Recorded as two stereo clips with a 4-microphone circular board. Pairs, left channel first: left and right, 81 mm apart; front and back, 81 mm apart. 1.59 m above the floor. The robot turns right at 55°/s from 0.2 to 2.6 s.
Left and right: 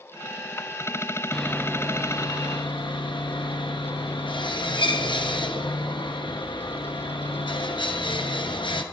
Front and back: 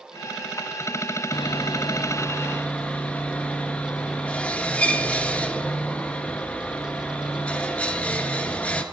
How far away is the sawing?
About 0.8 m.